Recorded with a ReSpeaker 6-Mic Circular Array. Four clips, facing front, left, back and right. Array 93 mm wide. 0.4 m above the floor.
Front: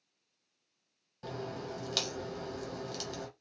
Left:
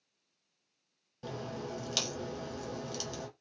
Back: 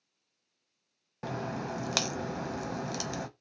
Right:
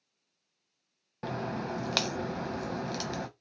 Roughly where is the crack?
Behind right.